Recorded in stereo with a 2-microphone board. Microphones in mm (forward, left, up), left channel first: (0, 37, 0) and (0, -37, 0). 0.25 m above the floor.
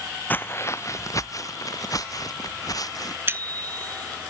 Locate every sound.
0.3 s footsteps: 25° left (ahead or behind); by 3.2 s 55° left (ahead or behind)
3.3 s a bicycle bell: 30° right (ahead or behind)